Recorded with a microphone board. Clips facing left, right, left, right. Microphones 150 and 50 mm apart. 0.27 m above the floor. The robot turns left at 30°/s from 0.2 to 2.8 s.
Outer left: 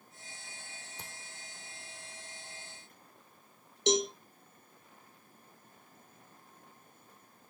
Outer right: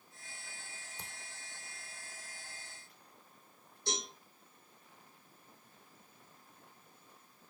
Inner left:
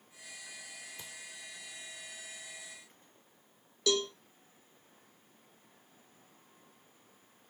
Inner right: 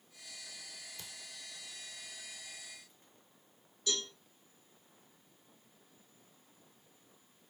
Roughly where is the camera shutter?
Centre.